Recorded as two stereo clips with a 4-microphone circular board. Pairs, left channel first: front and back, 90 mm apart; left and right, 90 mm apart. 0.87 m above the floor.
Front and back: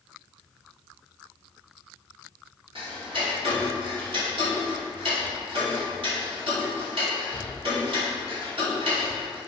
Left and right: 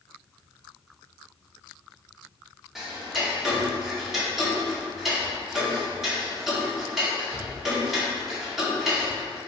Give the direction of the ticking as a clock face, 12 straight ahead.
6 o'clock.